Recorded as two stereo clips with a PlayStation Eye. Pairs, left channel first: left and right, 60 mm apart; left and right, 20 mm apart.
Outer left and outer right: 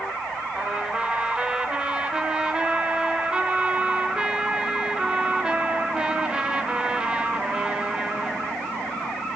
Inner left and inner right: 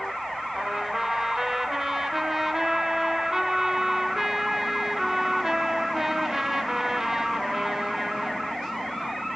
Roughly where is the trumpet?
Centre.